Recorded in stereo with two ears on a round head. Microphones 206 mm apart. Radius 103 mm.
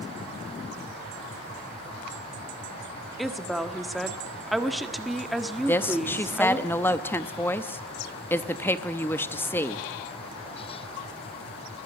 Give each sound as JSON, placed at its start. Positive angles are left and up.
{"t": 3.2, "sound": "a woman speaking", "side_deg": 0, "distance_m": 1.4}
{"t": 5.6, "sound": "a woman speaking", "side_deg": 10, "distance_m": 0.8}